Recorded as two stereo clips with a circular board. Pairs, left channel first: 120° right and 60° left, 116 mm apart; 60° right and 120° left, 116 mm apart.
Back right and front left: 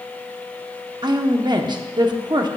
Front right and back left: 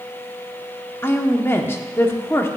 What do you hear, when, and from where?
1.0 s a woman speaking: 10° left, 0.8 m